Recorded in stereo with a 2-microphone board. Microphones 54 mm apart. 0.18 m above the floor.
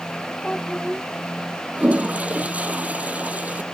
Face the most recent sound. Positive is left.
turn(degrees=-25)  # may be behind; listen again after turning